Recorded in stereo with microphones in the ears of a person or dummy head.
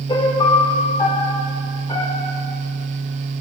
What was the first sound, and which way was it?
A piano, 25° left (ahead or behind).